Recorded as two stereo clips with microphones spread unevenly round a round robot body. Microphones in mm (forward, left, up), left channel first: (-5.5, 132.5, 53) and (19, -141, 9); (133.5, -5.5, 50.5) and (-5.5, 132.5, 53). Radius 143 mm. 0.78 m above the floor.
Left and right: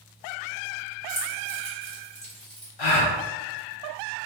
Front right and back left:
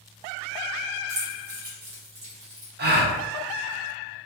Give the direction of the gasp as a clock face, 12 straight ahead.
9 o'clock.